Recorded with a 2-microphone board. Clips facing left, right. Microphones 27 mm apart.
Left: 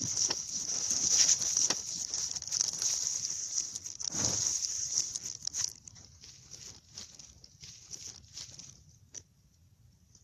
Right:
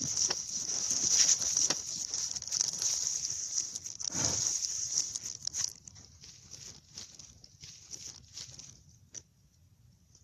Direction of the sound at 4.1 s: 25° right (ahead or behind).